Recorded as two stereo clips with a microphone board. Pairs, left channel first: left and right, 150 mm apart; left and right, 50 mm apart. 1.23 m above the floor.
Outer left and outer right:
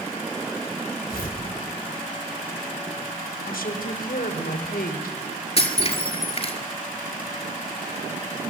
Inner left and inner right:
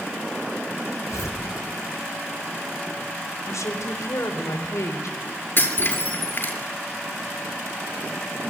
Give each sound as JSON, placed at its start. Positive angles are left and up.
{"t": 1.1, "sound": "tearing paper", "side_deg": 85, "distance_m": 4.0}
{"t": 3.5, "sound": "a woman speaking", "side_deg": 80, "distance_m": 3.5}
{"t": 5.6, "sound": "breaking glass", "side_deg": 45, "distance_m": 5.0}